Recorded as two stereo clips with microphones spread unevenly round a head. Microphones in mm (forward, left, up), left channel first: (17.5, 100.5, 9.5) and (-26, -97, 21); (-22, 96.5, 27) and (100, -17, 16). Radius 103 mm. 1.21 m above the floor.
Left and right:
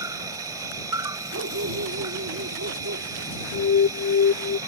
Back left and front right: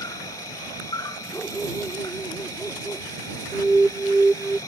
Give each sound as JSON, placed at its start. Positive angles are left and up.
{"t": 0.0, "sound": "an insect", "azimuth_deg": -165}
{"t": 1.3, "sound": "a dog barking", "azimuth_deg": -140}
{"t": 3.5, "sound": "an alarm", "azimuth_deg": 45}